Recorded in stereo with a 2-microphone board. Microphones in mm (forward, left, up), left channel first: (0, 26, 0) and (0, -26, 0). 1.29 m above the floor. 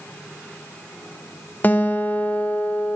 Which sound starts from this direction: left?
A guitar, at 1.6 s.